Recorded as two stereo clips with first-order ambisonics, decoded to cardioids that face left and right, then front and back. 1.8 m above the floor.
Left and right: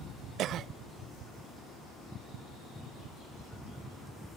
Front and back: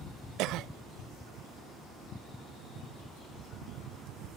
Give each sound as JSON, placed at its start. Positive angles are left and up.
{"t": 0.4, "sound": "a cough", "azimuth_deg": -140, "distance_m": 0.5}